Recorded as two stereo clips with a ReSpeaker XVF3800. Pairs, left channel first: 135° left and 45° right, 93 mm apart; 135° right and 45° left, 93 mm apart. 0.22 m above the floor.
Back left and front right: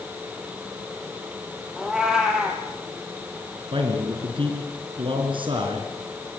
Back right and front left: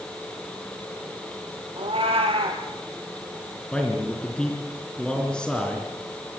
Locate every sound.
1.8 s a cat meowing: 40° left, 3 m
3.7 s a man speaking: 55° right, 3.5 m